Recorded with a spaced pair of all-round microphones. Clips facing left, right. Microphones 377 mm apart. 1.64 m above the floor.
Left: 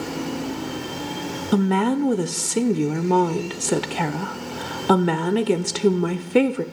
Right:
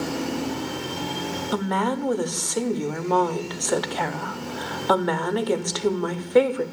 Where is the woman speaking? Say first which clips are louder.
Left 7 dB; 40° left (ahead or behind), 0.6 m.